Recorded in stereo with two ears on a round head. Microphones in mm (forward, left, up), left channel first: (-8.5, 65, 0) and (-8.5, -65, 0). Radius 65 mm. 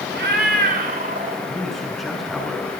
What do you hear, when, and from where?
0.1 s a cat meowing: 80° right, 1.7 m; by 1.4 s 50° right (ahead or behind), 1.9 m
1.5 s a man speaking: centre (ahead or behind), 5 m